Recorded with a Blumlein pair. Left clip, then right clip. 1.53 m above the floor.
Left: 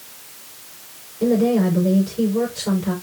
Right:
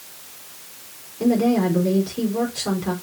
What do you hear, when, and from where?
1.2 s a woman speaking: 45° right, 5 m